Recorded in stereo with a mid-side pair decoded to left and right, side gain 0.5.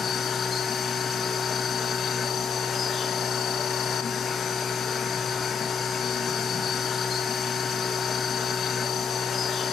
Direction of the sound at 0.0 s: 45° left.